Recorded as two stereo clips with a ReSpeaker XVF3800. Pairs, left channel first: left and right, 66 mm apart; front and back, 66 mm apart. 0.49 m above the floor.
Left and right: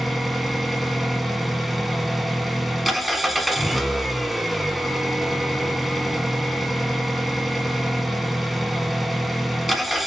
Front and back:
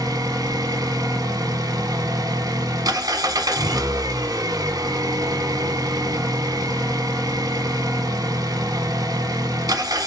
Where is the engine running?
Straight behind, 0.9 m.